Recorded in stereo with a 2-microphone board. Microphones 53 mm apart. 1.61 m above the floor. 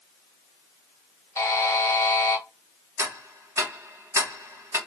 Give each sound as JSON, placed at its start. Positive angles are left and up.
{"t": 1.4, "sound": "a buzzer", "side_deg": 70, "distance_m": 0.8}
{"t": 3.0, "sound": "ticking", "side_deg": -55, "distance_m": 1.1}